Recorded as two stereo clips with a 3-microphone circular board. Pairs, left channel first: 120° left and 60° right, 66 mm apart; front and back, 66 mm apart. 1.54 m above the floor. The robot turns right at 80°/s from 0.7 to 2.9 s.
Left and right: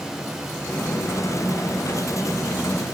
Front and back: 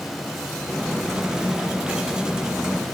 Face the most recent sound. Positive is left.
No sound to turn to.